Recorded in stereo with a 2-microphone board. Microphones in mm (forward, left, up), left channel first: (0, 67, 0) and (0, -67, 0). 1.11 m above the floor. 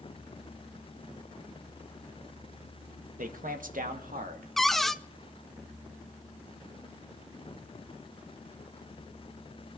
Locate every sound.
3.2 s a man speaking: 70° right (ahead or behind), 1.4 m; by 4.5 s 75° right (ahead or behind), 2.5 m
4.6 s a cupboard door: centre (ahead or behind), 0.6 m